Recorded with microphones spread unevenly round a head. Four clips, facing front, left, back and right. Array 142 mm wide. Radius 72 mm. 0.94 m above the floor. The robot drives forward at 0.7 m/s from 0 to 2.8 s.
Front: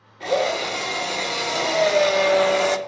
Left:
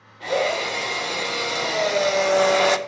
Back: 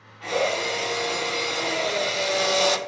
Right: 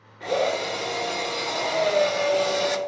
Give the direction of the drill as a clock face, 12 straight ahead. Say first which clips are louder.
Left 1 dB, front 3 dB; 12 o'clock.